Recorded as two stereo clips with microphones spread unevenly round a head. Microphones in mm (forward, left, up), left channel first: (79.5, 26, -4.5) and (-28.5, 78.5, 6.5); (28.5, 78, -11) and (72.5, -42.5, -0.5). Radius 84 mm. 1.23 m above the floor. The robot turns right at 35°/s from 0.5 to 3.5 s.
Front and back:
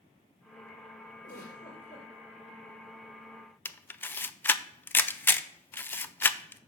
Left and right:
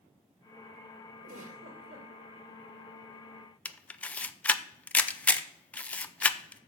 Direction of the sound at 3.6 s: 40° left.